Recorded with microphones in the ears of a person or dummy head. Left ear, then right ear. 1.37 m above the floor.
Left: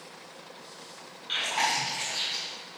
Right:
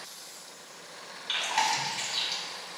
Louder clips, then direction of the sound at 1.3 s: Even; 35° right (ahead or behind).